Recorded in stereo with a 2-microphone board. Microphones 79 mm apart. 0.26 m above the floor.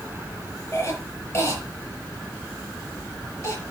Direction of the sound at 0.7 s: 35° left (ahead or behind).